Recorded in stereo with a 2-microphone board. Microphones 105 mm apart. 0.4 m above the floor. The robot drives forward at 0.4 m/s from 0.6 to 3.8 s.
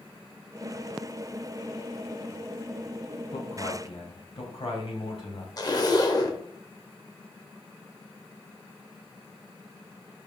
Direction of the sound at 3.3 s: 60° left (ahead or behind).